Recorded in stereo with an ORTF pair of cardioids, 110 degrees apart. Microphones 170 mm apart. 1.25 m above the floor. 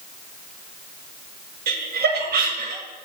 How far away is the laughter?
About 1.5 m.